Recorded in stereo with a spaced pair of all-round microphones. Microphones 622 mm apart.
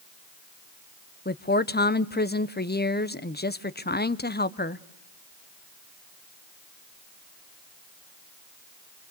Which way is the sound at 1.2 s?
15° left (ahead or behind).